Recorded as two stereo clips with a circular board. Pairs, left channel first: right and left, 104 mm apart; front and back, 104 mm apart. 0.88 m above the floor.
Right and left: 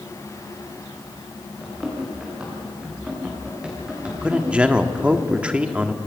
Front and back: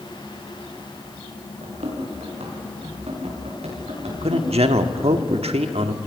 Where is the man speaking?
170° left, 1.4 m.